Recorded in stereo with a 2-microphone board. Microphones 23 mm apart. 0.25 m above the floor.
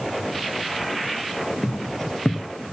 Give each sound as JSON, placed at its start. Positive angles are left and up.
{"t": 1.6, "sound": "footsteps", "side_deg": 15, "distance_m": 2.5}